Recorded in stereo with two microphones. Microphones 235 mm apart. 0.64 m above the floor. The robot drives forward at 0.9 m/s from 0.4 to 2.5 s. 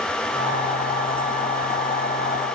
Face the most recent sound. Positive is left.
No sound to turn to.